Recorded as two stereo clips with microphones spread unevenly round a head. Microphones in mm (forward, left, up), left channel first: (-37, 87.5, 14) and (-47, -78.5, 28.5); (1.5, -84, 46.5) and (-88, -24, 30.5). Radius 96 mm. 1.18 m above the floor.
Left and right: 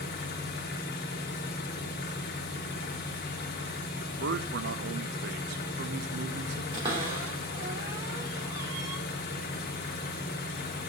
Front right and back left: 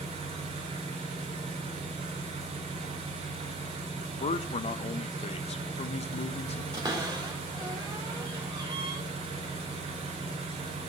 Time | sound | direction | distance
0.0 | an engine running | 110° left | 1.2 m
4.2 | a man speaking | 65° right | 0.5 m
6.7 | a cupboard door | 155° right | 2.5 m